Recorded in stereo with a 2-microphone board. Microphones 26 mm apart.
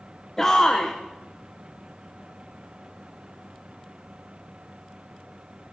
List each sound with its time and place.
0.4 s a shout: 15° left (ahead or behind), 1.0 m